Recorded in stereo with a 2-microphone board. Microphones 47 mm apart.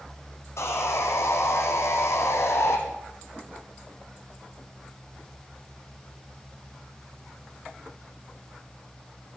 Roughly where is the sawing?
Left.